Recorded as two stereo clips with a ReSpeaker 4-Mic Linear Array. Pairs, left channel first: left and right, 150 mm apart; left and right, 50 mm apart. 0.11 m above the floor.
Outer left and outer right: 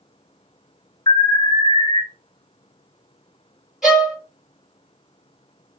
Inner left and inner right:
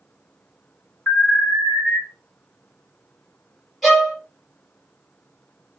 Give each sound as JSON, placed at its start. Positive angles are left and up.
{"t": 1.1, "sound": "an alarm", "side_deg": 25, "distance_m": 2.5}
{"t": 3.8, "sound": "a violin", "side_deg": 0, "distance_m": 1.8}